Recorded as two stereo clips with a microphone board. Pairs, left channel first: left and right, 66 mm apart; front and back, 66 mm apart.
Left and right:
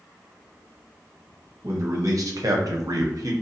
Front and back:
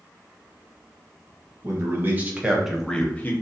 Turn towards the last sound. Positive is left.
turn(degrees=-60)